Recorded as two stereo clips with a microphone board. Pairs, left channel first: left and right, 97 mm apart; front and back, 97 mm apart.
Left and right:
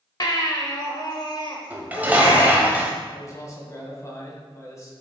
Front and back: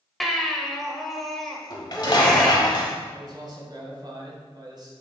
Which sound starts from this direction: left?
A baby crying, at 0.2 s.